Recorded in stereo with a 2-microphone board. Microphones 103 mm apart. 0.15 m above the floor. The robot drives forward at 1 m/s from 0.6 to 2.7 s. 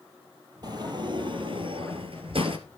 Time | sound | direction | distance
0.6 | a sliding door | 45° right (ahead or behind) | 2 m